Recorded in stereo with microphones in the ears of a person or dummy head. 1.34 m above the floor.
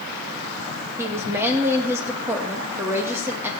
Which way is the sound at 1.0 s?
10° right (ahead or behind).